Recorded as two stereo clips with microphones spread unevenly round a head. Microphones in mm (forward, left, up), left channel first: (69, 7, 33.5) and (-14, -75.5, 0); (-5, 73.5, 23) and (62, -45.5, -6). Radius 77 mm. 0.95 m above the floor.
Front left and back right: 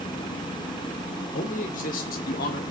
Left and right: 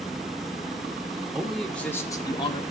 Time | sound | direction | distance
1.3 | a man speaking | 25° left | 2 m